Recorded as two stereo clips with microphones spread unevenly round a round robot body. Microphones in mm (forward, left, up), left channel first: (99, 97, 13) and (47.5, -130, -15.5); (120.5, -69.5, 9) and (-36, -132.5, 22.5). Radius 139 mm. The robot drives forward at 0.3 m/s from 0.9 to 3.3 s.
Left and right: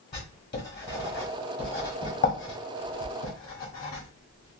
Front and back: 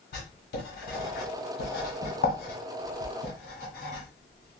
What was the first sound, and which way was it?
Writing, 30° left.